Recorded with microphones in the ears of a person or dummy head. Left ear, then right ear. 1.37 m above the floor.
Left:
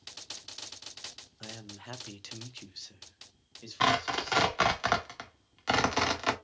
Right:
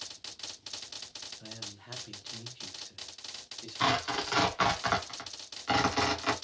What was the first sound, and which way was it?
A man speaking, 70° left (ahead or behind).